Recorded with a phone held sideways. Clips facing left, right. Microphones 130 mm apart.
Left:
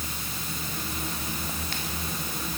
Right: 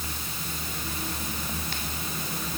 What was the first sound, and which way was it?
Only background noise.